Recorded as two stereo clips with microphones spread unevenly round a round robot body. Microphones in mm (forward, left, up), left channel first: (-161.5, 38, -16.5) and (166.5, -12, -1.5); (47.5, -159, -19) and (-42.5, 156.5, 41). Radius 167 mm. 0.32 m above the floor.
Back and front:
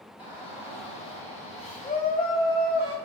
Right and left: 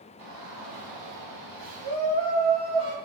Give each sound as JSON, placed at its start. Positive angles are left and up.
{"t": 0.2, "sound": "a shout", "azimuth_deg": 95, "distance_m": 3.0}